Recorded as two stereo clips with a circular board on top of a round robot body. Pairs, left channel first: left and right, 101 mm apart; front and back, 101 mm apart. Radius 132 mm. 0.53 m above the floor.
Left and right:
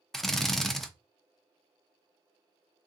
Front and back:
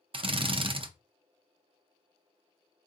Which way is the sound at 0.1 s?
175° left.